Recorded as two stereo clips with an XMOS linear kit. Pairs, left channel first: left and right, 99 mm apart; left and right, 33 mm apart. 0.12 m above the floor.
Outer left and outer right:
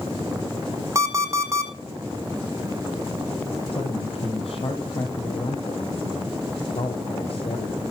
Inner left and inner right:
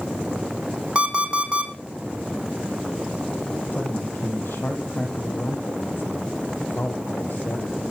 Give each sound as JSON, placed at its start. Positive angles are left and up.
{"t": 0.9, "sound": "an alarm clock", "side_deg": -30, "distance_m": 2.5}
{"t": 3.7, "sound": "a man speaking", "side_deg": 70, "distance_m": 5.0}